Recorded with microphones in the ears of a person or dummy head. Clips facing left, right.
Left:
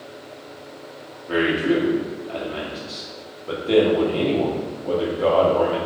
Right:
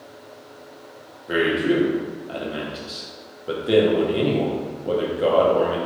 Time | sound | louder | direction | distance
1.3 | a man speaking | even | 5° right (ahead or behind) | 0.5 m